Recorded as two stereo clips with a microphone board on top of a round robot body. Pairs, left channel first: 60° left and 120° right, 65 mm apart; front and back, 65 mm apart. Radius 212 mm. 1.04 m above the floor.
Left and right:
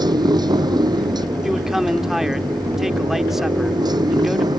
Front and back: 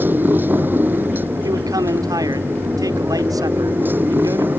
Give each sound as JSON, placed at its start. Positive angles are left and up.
{"t": 0.0, "sound": "a motorcycle", "azimuth_deg": -120}
{"t": 1.4, "sound": "a man speaking", "azimuth_deg": 155}